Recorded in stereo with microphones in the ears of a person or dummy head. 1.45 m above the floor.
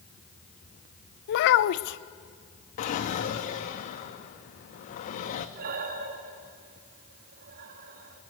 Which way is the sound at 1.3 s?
60° left (ahead or behind).